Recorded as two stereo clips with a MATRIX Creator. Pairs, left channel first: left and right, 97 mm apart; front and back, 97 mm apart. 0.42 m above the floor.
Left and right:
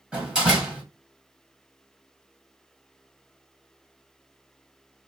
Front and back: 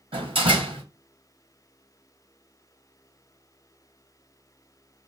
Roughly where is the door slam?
Behind.